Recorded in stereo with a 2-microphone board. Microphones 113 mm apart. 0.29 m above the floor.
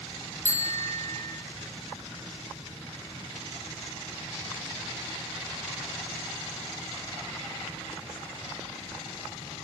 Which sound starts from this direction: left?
A bicycle bell, at 0.5 s.